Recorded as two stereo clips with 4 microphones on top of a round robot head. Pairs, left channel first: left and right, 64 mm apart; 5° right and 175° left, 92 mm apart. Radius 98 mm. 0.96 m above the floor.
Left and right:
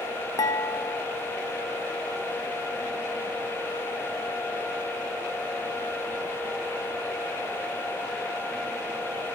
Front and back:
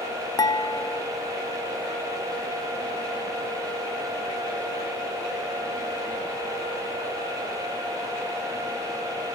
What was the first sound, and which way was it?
Dishes clattering, 50° left.